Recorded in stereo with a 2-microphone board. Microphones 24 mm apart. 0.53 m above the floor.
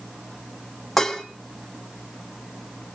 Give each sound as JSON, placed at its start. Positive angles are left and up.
{"t": 1.0, "sound": "dishes clattering", "side_deg": 5, "distance_m": 2.5}